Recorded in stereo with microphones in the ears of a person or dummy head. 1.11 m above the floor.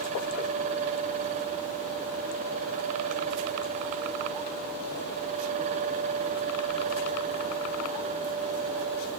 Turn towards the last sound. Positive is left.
No sound to turn to.